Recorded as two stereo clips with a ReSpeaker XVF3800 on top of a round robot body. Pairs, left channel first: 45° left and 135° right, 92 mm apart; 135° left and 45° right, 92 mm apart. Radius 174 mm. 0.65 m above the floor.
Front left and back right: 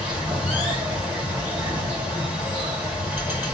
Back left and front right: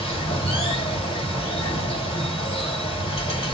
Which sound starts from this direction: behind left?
Running water, at 0.0 s.